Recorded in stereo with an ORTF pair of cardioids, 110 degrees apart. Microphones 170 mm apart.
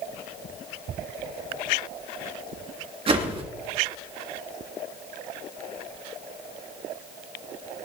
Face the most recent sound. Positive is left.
turn(degrees=-35)